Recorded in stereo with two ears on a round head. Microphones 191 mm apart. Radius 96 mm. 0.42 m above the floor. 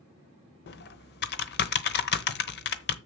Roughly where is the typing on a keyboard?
Left.